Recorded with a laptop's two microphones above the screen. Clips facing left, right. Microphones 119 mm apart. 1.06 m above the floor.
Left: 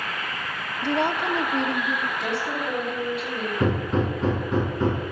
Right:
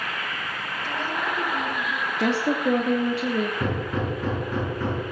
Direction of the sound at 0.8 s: 65° left (ahead or behind).